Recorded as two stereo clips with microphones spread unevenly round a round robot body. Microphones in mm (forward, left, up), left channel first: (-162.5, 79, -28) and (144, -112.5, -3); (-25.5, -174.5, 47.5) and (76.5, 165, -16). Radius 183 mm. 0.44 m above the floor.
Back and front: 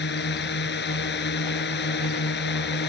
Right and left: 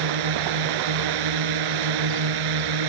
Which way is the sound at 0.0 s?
85° left.